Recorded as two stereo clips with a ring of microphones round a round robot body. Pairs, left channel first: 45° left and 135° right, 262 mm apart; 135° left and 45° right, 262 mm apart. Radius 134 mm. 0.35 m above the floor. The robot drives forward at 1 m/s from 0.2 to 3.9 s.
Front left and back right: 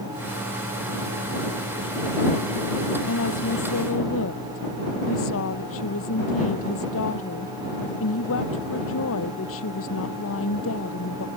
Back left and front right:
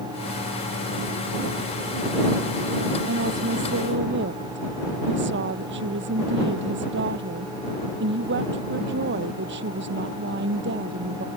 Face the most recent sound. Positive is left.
turn(degrees=5)